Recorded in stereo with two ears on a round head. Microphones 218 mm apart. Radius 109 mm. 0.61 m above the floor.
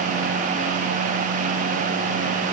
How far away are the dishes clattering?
I don't hear dishes clattering.